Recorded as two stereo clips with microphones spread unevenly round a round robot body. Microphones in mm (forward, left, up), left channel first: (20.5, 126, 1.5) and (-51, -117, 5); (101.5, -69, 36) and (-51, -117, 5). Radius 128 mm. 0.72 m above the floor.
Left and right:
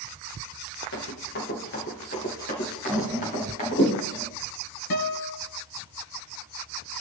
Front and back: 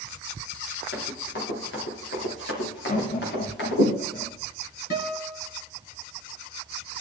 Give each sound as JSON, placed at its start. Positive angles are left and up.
{"t": 0.9, "sound": "running footsteps", "azimuth_deg": 25, "distance_m": 5.0}
{"t": 2.9, "sound": "laughter", "azimuth_deg": -25, "distance_m": 1.7}
{"t": 4.9, "sound": "a guitar", "azimuth_deg": 50, "distance_m": 2.5}